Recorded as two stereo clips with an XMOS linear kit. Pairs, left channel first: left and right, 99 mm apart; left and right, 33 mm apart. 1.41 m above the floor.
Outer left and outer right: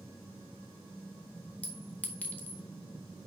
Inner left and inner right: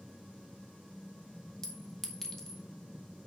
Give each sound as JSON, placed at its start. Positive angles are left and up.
{"t": 1.6, "sound": "a clink", "side_deg": 15, "distance_m": 1.8}